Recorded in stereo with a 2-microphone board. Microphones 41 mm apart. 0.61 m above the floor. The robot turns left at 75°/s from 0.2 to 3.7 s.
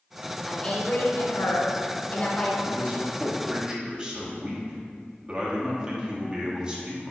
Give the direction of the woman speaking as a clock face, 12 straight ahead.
6 o'clock.